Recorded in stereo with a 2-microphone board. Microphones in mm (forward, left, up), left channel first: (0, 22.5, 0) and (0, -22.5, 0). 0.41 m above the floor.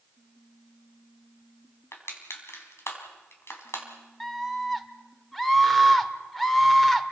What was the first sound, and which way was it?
Crushing, 65° left (ahead or behind).